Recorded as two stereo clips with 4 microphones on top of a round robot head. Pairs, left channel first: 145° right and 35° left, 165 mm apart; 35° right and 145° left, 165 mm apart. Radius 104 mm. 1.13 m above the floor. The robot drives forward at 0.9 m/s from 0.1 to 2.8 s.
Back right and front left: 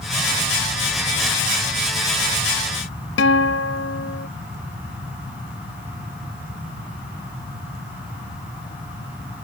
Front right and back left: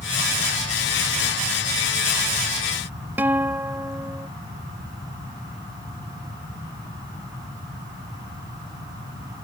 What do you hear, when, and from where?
3.2 s a guitar: 135° right